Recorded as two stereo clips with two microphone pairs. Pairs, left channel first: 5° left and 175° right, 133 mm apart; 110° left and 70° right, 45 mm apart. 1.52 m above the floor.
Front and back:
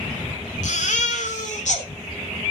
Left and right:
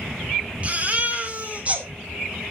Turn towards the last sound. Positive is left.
turn(degrees=-15)